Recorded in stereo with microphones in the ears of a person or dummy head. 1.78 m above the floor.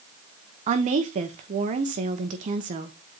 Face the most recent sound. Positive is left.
turn(degrees=-35)  # may be behind; listen again after turning